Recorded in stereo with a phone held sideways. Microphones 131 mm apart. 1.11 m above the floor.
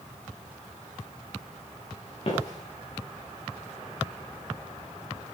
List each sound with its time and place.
2.2 s footsteps: 50° left (ahead or behind), 6.5 m